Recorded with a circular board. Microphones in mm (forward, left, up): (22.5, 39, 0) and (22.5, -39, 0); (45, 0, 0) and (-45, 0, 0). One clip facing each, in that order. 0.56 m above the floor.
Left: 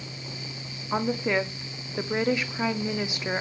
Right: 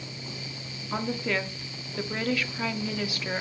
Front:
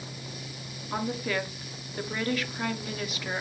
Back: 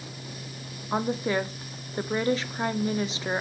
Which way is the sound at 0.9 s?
145° left.